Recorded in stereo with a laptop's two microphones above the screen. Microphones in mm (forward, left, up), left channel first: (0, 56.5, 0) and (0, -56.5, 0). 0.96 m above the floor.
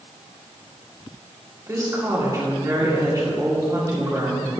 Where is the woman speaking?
30° right (ahead or behind), 2 m.